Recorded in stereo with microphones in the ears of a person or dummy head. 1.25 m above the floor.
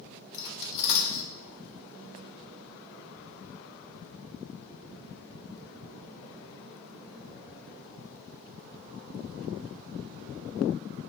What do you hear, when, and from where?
0.3 s cutlery clinking: 60° left (ahead or behind), 0.5 m